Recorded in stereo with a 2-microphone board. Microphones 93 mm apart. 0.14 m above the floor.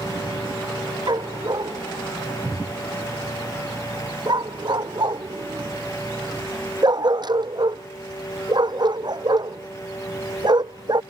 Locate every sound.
1.1 s a dog barking: 50° right (ahead or behind)